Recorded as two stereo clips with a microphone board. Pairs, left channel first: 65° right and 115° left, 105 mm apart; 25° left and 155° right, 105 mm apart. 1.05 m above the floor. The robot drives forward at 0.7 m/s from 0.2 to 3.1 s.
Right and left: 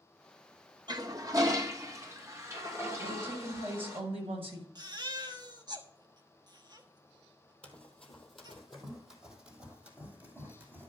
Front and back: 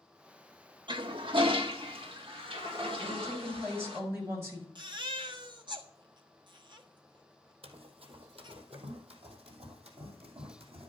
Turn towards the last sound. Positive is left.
turn(degrees=180)